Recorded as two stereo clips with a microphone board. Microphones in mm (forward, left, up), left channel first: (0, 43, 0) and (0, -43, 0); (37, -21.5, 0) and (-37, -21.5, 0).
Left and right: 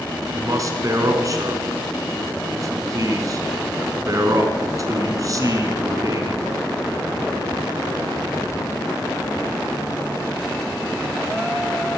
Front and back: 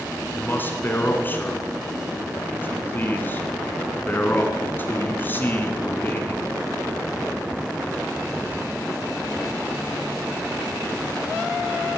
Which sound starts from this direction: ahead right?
A man speaking, at 0.3 s.